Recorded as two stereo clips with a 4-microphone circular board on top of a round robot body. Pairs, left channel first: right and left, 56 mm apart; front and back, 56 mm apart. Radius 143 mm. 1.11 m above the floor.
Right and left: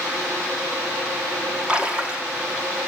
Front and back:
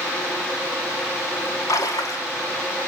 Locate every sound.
1.7 s a splash: 15° left, 1.4 m